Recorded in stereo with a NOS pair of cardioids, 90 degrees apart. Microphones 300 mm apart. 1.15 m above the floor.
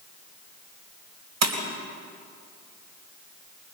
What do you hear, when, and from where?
1.4 s breaking glass: 60° right, 3 m